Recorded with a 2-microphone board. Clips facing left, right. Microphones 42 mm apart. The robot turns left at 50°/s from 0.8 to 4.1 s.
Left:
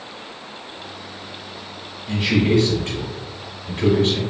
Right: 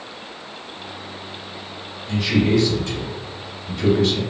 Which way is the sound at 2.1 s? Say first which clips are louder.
Even; 150° left.